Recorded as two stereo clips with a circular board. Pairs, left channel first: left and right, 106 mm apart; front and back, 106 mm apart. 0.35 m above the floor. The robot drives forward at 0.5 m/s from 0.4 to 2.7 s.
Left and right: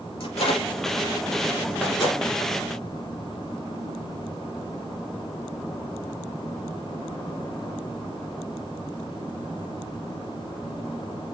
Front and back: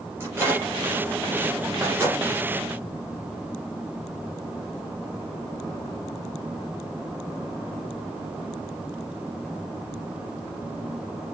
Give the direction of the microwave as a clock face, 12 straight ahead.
8 o'clock.